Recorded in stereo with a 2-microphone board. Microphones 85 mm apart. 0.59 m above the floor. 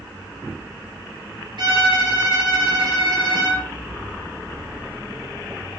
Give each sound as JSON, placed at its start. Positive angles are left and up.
{"t": 1.6, "sound": "a violin", "side_deg": -60, "distance_m": 1.5}